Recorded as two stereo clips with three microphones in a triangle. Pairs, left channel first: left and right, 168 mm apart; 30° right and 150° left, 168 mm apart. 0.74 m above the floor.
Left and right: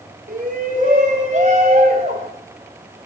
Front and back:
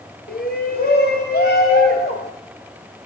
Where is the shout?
50° right, 3 m; by 2.3 s 35° right, 4 m.